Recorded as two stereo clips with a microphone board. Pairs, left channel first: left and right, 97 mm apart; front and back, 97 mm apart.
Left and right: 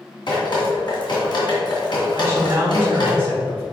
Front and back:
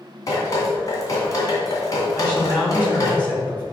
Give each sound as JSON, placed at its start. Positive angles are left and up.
{"t": 0.3, "sound": "dripping", "azimuth_deg": 55, "distance_m": 2.5}
{"t": 2.1, "sound": "a man speaking", "azimuth_deg": -55, "distance_m": 1.3}